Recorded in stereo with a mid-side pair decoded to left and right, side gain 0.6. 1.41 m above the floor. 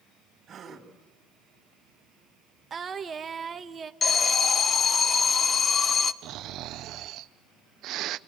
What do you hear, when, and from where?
0.5 s a gasp: 40° right, 3.5 m
2.7 s singing: 35° right, 1.2 m
4.0 s an alarm: 35° left, 1.0 m
6.2 s snoring: 60° right, 0.6 m